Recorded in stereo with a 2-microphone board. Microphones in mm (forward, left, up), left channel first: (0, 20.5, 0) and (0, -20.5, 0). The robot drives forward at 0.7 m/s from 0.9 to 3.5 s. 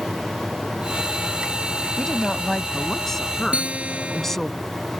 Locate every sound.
2.0 s a woman speaking: 10° left (ahead or behind); by 4.5 s 5° left (ahead or behind)
3.5 s a guitar: 30° right (ahead or behind)